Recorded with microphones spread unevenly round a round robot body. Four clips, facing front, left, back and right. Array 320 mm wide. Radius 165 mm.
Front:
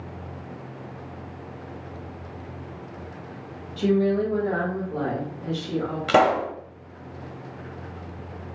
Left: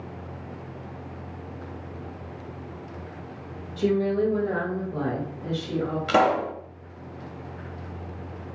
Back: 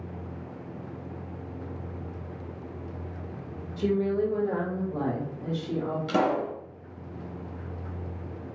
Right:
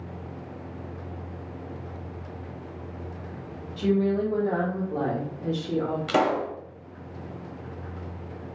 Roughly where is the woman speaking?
Left.